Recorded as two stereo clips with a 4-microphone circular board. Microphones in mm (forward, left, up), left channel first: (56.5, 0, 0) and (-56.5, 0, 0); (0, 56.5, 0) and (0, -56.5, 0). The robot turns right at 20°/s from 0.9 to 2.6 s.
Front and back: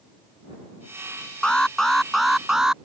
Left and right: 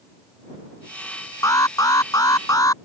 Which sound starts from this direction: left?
An alarm, at 1.4 s.